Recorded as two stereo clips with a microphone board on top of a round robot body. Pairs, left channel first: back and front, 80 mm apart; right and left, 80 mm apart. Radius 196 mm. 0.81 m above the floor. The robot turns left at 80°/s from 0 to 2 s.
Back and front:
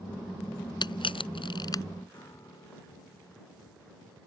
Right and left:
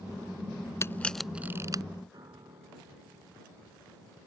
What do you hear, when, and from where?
0.8 s a camera shutter: 150° right; by 1.8 s 130° left
2.1 s a piano: 130° left